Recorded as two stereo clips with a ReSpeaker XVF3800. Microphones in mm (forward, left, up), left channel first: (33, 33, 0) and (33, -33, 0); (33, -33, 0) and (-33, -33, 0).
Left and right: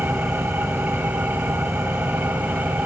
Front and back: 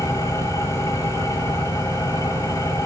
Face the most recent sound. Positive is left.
turn(degrees=-25)